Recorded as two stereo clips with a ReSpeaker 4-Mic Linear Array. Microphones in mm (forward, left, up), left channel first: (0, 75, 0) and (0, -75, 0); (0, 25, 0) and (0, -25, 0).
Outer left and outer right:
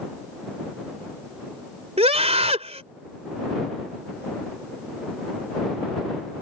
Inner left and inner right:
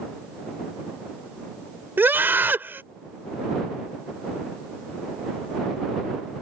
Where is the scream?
45° right (ahead or behind).